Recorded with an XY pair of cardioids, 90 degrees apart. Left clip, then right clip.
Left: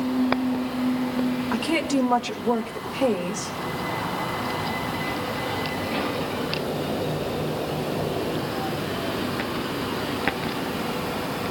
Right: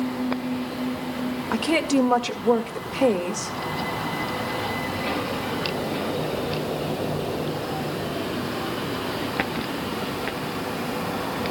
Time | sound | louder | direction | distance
1.5 | a woman speaking | right 4 dB | 25° right | 1.9 m